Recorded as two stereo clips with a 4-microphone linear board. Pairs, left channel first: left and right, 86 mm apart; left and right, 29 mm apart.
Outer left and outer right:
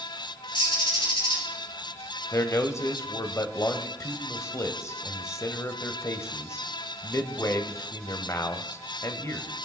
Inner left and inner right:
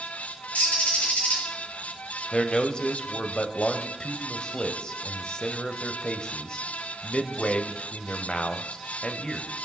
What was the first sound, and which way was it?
A bird, 70° left (ahead or behind).